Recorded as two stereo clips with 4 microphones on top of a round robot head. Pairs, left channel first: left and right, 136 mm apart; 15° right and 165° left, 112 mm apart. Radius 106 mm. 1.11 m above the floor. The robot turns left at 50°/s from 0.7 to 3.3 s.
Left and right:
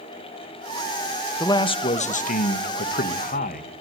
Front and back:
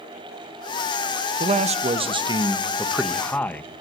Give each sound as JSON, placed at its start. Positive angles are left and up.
{"t": 1.4, "sound": "a man speaking", "azimuth_deg": 160, "distance_m": 1.1}